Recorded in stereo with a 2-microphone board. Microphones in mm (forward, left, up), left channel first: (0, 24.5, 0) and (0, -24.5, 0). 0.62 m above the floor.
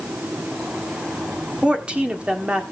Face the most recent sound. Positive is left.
turn(degrees=-25)  # may be behind; listen again after turning